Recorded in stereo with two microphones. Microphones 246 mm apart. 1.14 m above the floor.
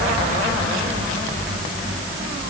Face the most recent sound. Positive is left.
No sound to turn to.